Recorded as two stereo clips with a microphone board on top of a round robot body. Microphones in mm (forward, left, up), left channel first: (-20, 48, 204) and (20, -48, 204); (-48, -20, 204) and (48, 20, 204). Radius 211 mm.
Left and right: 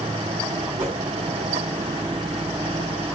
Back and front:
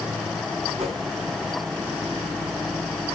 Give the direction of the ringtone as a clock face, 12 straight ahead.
I don't hear a ringtone.